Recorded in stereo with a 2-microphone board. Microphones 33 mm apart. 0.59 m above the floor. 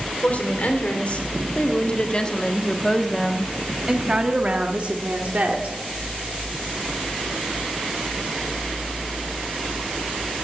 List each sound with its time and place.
0.2 s a woman speaking: 55° left (ahead or behind), 2 m; by 5.8 s 55° right (ahead or behind), 1.8 m